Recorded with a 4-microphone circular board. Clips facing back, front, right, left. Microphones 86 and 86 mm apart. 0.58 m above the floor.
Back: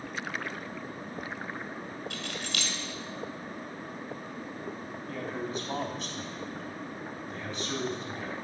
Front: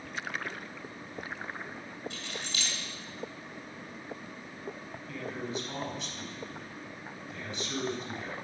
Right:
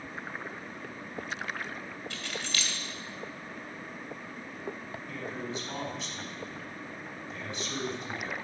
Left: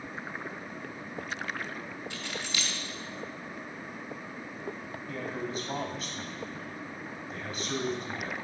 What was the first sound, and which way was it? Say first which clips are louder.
Keys jangling: back 3 dB, right 1 dB; 165° left.